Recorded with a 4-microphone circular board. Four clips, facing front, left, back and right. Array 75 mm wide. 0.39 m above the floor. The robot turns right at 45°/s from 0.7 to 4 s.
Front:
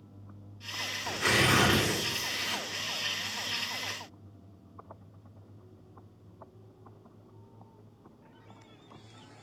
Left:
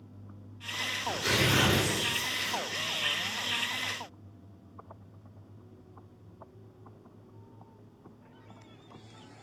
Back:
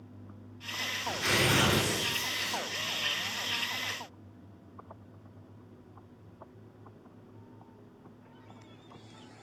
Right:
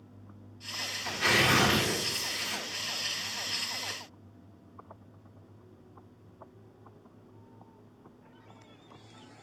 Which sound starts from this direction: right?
Tearing paper, at 1.0 s.